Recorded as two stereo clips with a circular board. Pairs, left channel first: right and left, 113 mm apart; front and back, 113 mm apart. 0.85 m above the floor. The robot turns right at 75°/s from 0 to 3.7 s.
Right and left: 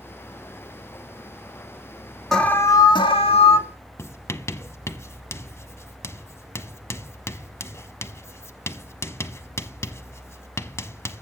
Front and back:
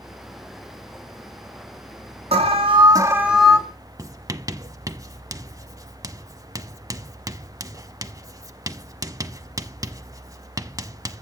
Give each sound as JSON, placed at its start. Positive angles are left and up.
{"t": 2.3, "sound": "an alarm", "azimuth_deg": -175, "distance_m": 2.5}
{"t": 4.0, "sound": "writing", "azimuth_deg": -140, "distance_m": 0.9}